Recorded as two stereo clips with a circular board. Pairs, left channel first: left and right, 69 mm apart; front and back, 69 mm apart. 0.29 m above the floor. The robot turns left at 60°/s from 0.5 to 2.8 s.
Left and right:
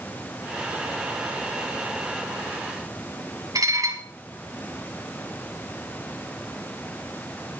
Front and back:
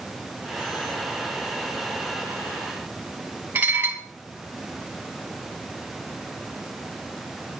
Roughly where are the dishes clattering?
Behind right.